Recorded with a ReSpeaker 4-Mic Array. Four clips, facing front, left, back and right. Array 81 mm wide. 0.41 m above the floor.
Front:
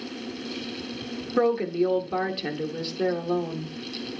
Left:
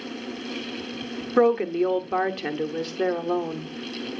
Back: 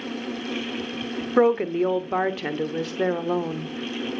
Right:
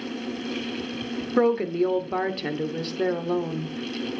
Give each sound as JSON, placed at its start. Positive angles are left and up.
{"t": 1.4, "sound": "a woman speaking", "azimuth_deg": 155, "distance_m": 0.8}